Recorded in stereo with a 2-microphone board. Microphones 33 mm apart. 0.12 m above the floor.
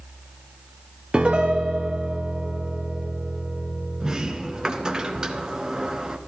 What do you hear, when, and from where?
1.1 s a piano: 30° right (ahead or behind), 1.3 m
4.0 s a sliding door: 20° right (ahead or behind), 1.1 m